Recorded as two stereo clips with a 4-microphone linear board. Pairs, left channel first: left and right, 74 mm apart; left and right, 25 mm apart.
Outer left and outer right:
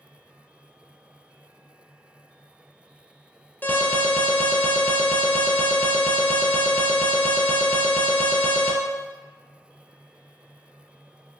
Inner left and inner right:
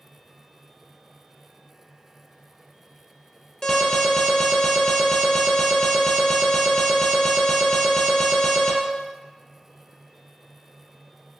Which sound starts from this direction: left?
An alarm, at 3.6 s.